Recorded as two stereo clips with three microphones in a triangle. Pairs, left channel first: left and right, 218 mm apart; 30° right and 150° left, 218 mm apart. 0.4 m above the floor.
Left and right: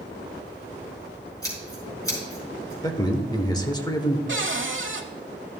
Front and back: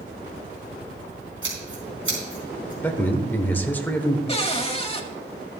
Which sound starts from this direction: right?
A cupboard door, at 4.3 s.